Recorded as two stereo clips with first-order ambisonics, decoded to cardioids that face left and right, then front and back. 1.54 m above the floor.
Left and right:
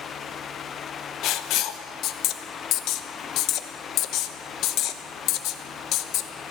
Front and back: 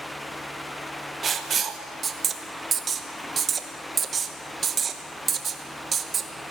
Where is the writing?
120° left, 0.9 m.